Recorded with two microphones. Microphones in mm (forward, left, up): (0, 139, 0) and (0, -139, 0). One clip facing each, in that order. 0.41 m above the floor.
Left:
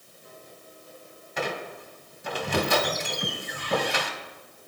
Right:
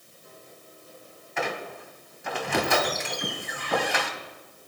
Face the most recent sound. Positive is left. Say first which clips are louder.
# even
turn(degrees=40)  # may be behind; listen again after turning